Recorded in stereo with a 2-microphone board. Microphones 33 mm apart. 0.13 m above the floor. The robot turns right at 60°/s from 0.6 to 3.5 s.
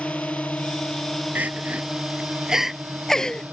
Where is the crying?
65° right (ahead or behind); by 3.4 s 30° left (ahead or behind).